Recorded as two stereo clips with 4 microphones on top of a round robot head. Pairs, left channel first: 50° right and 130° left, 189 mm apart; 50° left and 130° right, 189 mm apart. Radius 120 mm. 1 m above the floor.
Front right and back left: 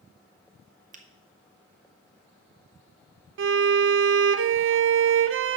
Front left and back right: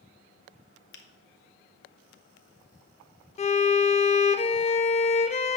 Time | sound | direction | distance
0.9 | a finger snap | 80° left | 1.0 m
3.4 | a violin | 110° left | 0.6 m